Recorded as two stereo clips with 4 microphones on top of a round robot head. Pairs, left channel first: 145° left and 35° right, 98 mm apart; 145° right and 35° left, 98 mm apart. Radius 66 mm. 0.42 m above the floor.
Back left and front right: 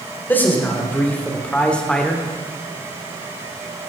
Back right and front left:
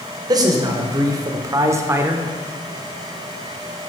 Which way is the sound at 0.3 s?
75° left.